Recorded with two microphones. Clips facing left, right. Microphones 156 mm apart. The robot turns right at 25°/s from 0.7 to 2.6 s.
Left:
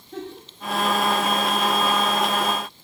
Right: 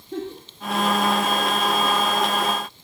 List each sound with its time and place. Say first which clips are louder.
0.1 s a giggle: right 4 dB; 75° right (ahead or behind), 2.5 m